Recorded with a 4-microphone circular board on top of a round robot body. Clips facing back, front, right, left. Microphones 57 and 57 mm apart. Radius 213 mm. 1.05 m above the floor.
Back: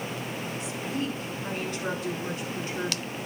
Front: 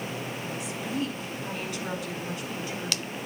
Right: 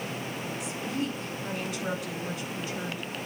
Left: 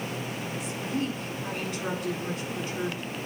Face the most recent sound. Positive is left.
turn(degrees=130)